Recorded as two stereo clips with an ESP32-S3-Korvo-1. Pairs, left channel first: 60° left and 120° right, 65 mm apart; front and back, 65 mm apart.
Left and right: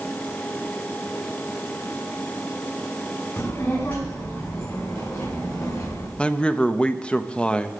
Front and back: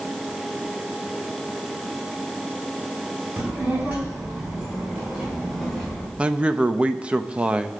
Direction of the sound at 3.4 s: 115° left.